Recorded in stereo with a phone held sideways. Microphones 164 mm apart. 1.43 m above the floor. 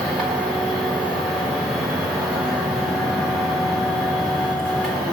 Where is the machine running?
5° left (ahead or behind), 3.5 m.